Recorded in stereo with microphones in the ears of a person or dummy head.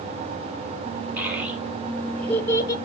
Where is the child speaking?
5° right (ahead or behind), 2.5 m; by 2.8 s 25° left (ahead or behind), 1.4 m.